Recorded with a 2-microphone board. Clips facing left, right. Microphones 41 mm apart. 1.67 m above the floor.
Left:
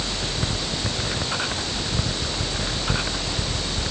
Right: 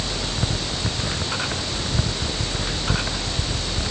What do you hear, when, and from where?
Only background noise.